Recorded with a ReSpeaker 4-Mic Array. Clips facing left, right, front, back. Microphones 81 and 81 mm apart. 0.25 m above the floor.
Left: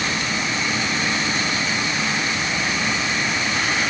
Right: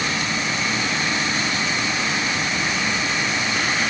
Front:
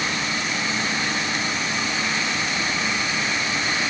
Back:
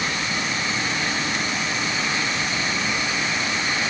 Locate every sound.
Only background noise.